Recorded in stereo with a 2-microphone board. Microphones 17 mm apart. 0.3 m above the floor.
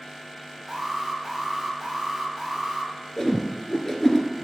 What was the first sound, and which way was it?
An alarm, 10° right (ahead or behind).